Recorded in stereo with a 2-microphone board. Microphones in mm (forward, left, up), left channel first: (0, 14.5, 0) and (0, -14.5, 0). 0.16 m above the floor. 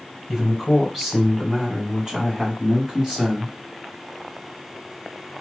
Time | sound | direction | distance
0.3 | a man speaking | 5° left (ahead or behind) | 1.6 m